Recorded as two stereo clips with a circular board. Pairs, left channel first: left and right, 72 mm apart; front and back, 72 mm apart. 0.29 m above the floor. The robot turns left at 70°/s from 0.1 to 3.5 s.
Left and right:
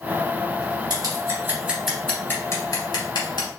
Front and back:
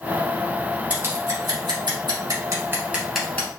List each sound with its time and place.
0.9 s scissors: 105° right, 2.5 m; by 3.5 s 70° left, 2.5 m